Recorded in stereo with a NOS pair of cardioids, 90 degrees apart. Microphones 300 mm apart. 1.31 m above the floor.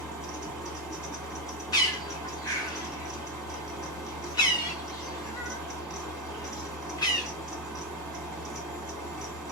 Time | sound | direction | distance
0.0 | a fan | 5° right | 1.5 m
1.7 | a bird | 15° left | 1.0 m